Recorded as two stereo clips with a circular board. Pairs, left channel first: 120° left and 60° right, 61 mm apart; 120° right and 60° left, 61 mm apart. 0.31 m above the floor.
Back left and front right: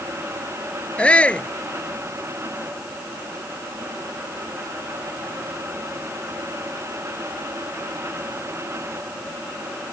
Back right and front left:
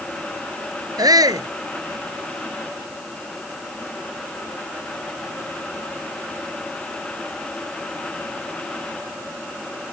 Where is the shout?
45° left.